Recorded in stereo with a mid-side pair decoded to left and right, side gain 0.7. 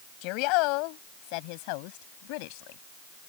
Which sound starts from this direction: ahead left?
A woman speaking, at 0.2 s.